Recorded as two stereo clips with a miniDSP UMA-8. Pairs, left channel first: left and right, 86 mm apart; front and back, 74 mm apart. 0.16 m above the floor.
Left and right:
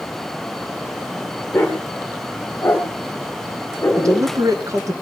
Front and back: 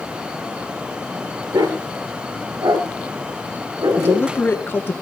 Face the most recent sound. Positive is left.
turn(degrees=-55)